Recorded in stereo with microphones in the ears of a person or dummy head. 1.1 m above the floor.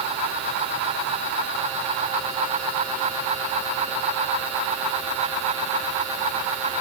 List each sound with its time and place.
Only background noise.